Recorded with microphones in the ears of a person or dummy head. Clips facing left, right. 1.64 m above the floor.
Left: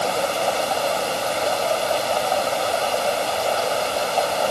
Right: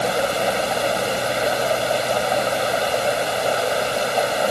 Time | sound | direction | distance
0.0 | running water | 20° right (ahead or behind) | ?